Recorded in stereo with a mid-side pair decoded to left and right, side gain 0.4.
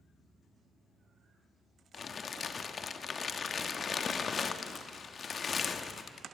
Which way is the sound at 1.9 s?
50° left.